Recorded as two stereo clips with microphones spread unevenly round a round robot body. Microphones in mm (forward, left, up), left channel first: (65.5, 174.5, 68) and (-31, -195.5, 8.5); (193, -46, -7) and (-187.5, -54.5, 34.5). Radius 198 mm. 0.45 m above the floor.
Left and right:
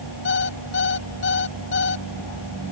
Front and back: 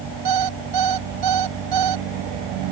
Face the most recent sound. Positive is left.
turn(degrees=140)